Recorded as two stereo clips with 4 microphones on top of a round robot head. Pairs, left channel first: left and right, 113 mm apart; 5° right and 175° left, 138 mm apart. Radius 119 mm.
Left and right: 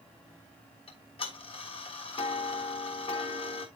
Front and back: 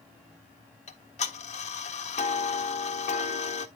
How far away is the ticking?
About 1.4 m.